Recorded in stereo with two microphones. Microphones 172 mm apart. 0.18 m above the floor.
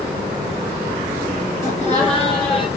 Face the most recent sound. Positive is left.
turn(degrees=0)  # may be behind; listen again after turning